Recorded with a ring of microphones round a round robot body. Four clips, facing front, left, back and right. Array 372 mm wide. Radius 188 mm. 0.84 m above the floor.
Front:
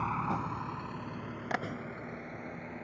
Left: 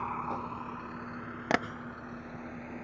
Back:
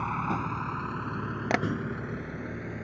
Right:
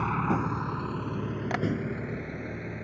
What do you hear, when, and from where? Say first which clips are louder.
0.0 s a vehicle: right 7 dB, back 3 dB; 90° right; by 2.8 s 130° right
1.5 s tapping: left 2 dB, back 7 dB; 140° left